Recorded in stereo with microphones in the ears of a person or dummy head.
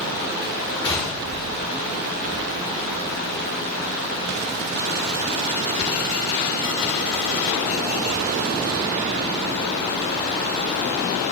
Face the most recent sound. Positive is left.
turn(degrees=25)  # may be behind; listen again after turning